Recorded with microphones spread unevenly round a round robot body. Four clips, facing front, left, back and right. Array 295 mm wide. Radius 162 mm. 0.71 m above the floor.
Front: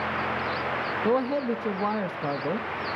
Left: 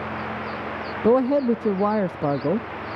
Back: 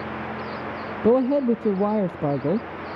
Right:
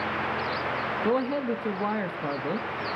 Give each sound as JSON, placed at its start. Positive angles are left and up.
{"t": 1.0, "sound": "a man speaking", "azimuth_deg": 135, "distance_m": 0.6}